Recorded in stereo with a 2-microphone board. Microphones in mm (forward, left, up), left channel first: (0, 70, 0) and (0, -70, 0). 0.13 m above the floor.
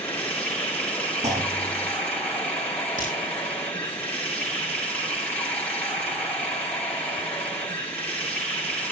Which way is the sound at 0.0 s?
10° left (ahead or behind).